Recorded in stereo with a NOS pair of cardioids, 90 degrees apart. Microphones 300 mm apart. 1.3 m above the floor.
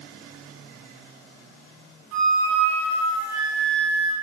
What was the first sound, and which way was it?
A flute, 60° right.